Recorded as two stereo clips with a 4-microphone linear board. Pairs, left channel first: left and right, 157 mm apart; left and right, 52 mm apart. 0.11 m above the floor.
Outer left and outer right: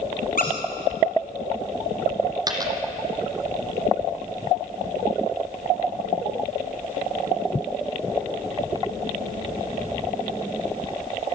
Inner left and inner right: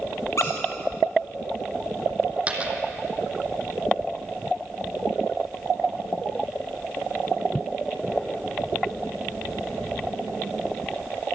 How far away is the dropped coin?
About 2.5 m.